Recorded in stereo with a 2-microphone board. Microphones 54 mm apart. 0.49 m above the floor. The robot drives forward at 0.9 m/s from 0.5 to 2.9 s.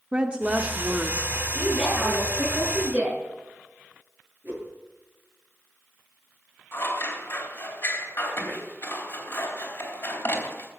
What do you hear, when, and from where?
0.1 s a woman speaking: 20° right (ahead or behind), 0.9 m
1.6 s a woman speaking: 20° right (ahead or behind), 8 m
4.4 s a whoosh: 35° right (ahead or behind), 7 m
6.7 s scissors: 45° left (ahead or behind), 3 m